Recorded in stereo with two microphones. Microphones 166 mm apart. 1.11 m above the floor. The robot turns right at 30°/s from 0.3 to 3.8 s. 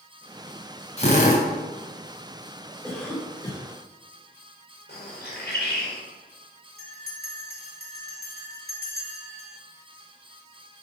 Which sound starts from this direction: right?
A bell, at 6.8 s.